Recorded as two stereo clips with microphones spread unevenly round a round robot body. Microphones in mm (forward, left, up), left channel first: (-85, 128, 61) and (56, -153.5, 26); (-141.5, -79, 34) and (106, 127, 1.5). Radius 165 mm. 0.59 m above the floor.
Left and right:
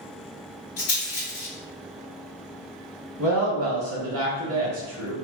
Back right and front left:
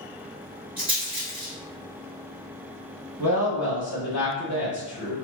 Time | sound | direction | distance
0.8 | a rattle | 100° left | 1.3 m
3.2 | a woman speaking | 40° right | 1.3 m